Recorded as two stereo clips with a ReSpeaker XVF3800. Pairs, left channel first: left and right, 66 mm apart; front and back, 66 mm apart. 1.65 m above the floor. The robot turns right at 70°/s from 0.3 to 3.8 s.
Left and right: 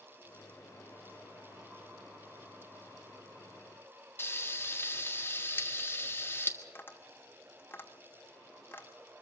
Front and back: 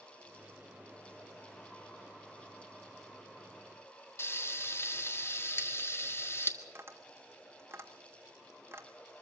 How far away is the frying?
About 1.6 m.